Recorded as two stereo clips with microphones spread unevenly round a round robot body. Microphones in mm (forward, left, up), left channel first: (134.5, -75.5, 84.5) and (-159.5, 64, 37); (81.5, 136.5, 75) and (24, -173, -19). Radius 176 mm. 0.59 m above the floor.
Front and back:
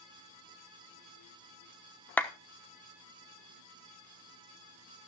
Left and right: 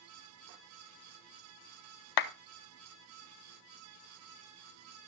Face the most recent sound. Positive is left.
turn(degrees=65)